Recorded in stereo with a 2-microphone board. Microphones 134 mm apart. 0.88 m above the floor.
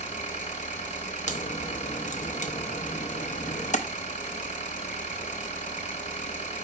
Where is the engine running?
70° left (ahead or behind), 1.9 m.